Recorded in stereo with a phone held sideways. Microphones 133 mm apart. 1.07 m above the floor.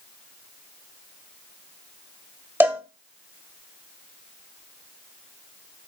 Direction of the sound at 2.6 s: 20° right (ahead or behind).